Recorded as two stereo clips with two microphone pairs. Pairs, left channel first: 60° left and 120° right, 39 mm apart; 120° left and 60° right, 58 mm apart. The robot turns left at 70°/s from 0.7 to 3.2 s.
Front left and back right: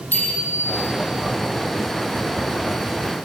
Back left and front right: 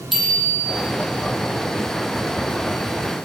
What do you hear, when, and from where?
0.1 s a bicycle bell: 25° left, 9.5 m